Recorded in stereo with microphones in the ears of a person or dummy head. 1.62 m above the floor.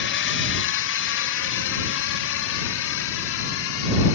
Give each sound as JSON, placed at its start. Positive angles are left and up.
{"t": 0.0, "sound": "a drone", "side_deg": 55}